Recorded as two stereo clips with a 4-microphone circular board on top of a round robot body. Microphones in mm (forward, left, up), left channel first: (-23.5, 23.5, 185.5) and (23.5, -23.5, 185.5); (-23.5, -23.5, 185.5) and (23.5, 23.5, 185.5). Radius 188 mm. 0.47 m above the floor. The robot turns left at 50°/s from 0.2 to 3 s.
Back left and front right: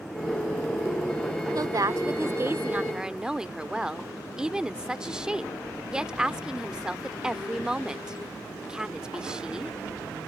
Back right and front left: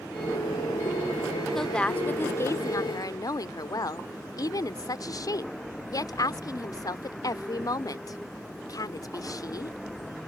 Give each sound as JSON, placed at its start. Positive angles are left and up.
{"t": 1.6, "sound": "a woman speaking", "azimuth_deg": -50}